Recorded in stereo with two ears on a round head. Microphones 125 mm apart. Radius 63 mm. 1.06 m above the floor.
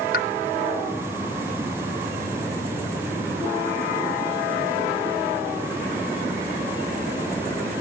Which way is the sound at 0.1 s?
65° left (ahead or behind).